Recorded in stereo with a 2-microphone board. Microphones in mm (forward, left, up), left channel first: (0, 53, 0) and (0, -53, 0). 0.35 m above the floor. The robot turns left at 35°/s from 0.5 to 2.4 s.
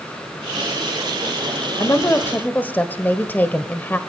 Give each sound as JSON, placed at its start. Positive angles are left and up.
{"t": 1.8, "sound": "a woman speaking", "side_deg": 30, "distance_m": 1.4}